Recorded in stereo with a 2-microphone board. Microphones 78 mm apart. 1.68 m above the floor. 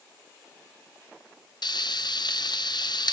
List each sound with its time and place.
1.6 s frying: 65° left (ahead or behind), 1.0 m